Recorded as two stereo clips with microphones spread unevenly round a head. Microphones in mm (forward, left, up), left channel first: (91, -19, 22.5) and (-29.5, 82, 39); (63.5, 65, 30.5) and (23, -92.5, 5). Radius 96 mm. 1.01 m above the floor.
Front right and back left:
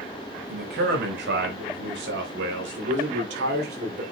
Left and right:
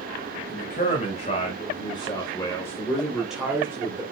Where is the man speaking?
130° left, 5 m; by 4.0 s 175° right, 3 m.